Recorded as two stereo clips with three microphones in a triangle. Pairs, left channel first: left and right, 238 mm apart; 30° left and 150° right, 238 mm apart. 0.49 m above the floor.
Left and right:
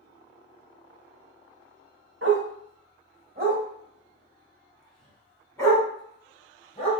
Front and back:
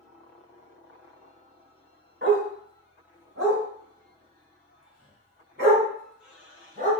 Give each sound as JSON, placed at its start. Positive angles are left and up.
{"t": 2.2, "sound": "a dog barking", "azimuth_deg": -110, "distance_m": 1.2}